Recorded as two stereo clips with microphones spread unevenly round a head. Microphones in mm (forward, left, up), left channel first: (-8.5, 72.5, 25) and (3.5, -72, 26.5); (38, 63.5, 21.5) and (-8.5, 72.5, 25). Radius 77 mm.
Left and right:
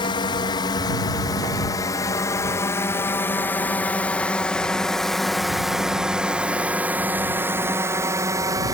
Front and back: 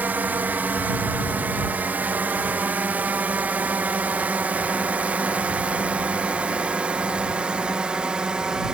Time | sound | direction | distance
0.0 | a drone | 140° left | ?